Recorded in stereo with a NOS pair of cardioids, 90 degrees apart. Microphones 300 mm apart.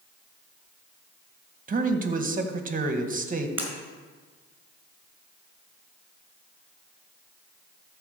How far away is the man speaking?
About 1.8 m.